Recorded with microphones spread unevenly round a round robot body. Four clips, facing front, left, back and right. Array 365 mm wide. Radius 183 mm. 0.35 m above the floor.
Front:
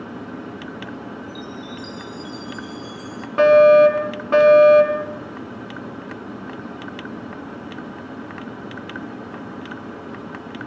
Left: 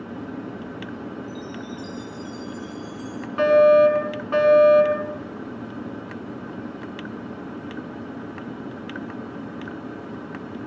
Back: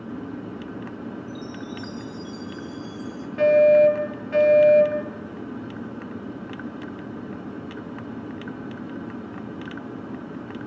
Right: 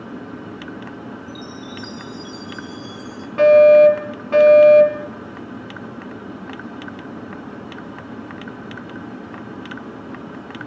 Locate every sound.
1.3 s a chime: 70° right, 5.5 m
3.4 s a fire alarm: 10° right, 6 m